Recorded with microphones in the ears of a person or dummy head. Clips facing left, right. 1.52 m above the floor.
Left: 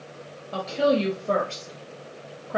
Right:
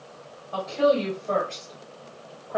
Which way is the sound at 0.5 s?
30° left (ahead or behind).